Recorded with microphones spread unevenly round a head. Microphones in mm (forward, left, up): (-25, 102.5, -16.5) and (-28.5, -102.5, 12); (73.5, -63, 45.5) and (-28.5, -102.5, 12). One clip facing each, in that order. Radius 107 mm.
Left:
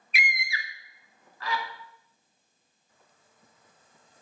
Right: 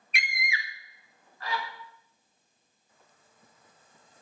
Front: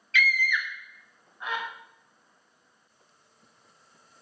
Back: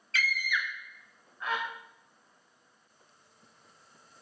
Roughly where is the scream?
Behind.